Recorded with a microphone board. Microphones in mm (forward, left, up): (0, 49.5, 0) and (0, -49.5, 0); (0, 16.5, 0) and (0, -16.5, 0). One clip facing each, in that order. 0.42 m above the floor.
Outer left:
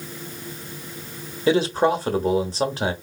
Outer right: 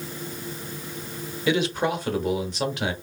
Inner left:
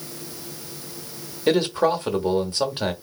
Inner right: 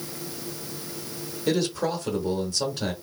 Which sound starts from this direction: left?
A man speaking, at 1.5 s.